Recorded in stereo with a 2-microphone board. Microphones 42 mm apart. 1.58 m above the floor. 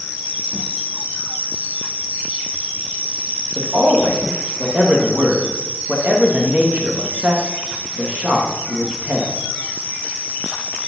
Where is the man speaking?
35° right (ahead or behind), 1.6 m.